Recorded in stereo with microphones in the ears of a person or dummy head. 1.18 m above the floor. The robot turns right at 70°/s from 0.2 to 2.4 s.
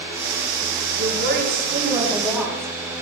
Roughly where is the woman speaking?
Right.